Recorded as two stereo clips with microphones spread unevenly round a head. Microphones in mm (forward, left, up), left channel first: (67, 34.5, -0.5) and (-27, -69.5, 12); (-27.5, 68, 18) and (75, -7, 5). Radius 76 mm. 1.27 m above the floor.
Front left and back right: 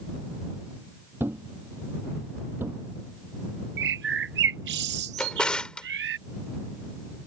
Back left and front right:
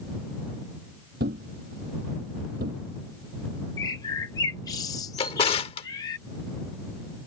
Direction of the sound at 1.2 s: 60° right.